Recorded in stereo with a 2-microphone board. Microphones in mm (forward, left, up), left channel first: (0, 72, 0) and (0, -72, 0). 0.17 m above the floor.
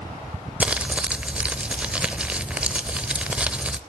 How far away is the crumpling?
About 0.8 m.